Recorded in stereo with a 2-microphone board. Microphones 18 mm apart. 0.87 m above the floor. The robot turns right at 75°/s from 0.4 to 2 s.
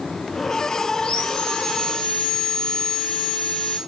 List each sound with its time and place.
1.0 s sawing: 65° left, 2 m; by 3.8 s 145° left, 2 m